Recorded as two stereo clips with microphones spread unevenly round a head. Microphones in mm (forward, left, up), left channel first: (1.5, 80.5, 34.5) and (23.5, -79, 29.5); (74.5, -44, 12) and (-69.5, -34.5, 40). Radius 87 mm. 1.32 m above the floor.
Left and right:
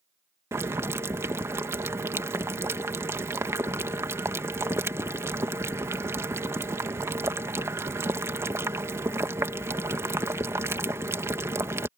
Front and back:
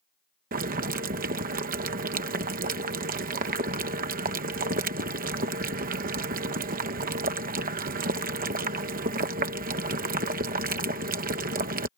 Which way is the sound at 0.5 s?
155° right.